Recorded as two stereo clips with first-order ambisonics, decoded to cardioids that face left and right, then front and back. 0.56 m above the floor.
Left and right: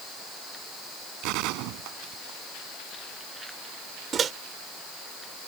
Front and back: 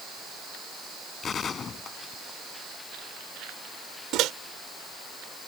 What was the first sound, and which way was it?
A gunshot, 70° right.